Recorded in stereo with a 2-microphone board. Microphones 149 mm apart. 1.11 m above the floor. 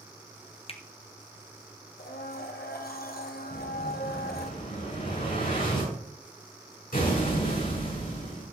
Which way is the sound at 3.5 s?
70° left (ahead or behind).